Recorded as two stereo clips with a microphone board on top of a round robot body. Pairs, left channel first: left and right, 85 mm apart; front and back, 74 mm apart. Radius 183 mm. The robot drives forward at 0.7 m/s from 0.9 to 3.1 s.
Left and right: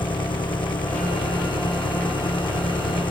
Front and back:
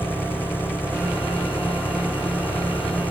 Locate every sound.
0.0 s an engine running: 65° left; by 3.1 s 70° left